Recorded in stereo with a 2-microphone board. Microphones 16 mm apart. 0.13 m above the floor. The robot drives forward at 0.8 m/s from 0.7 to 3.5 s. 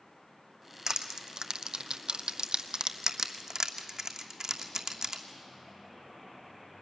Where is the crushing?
40° right (ahead or behind), 1.3 m.